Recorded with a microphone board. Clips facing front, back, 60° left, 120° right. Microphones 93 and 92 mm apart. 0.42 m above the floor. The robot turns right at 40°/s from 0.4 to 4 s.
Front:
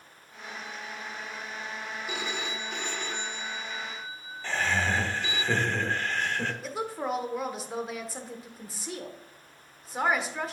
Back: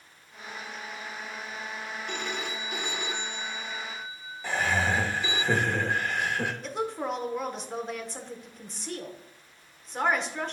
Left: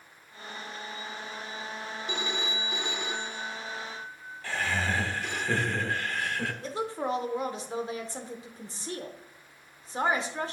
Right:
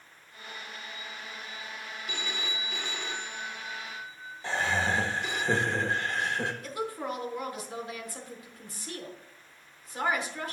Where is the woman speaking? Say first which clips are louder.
Back 1 dB, left 3 dB; 85° left, 0.8 m.